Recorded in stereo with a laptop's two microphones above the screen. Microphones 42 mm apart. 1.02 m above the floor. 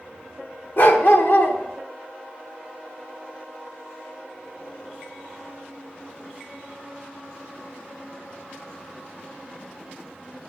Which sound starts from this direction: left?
A dog barking, at 0.8 s.